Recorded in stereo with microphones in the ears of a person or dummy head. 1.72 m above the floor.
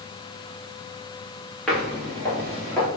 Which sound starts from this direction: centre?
Footsteps, at 1.7 s.